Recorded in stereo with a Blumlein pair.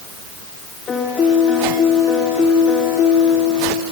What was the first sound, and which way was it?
A piano, 20° left.